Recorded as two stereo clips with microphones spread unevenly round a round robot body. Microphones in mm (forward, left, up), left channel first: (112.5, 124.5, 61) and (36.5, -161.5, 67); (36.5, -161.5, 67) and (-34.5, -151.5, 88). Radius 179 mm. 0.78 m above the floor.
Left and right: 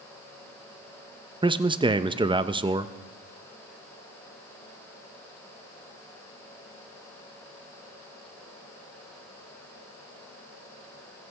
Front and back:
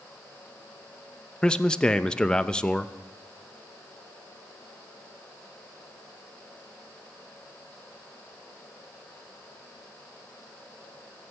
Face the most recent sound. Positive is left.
turn(degrees=-40)